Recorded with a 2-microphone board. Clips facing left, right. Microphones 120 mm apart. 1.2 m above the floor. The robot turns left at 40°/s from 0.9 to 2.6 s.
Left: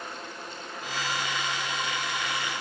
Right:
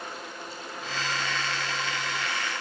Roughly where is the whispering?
I don't hear whispering.